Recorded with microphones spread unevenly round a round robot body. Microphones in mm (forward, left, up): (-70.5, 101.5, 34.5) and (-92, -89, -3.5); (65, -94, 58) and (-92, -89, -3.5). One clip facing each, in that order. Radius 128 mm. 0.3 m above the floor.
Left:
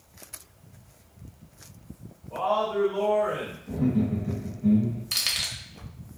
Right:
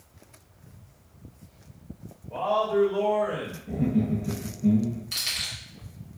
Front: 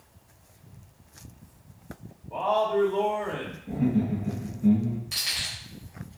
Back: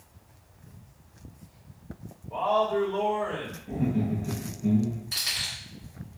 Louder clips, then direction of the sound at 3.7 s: Even, front 3 dB; 30° right.